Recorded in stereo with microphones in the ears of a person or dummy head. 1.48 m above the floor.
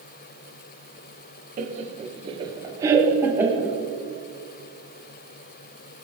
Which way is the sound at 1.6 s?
40° right (ahead or behind).